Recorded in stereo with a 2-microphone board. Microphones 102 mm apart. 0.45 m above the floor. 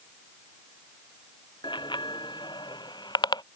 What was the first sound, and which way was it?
A bicycle bell, 50° left (ahead or behind).